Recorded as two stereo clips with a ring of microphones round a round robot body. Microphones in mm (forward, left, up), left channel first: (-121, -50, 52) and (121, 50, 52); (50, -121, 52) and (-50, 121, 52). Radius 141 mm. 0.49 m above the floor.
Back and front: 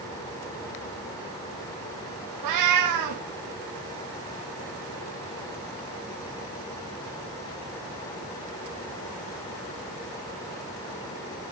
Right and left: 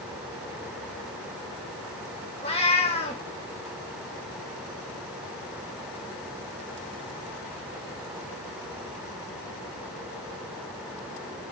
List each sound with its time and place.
2.4 s a cat meowing: straight ahead, 2.5 m